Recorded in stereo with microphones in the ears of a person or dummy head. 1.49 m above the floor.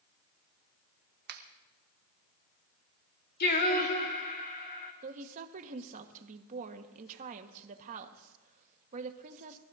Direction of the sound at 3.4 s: 50° left (ahead or behind).